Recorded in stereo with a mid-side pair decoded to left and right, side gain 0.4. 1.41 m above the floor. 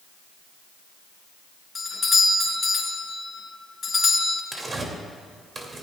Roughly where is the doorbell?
Ahead left.